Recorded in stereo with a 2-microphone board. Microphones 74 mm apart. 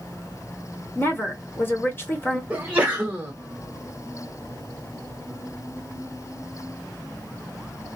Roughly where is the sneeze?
Centre.